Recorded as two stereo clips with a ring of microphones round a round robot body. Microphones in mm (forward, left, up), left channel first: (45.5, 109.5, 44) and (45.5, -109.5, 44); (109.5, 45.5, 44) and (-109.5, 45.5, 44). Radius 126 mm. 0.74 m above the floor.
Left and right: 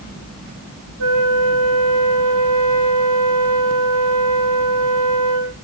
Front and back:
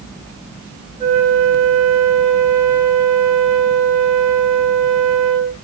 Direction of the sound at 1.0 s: 115° right.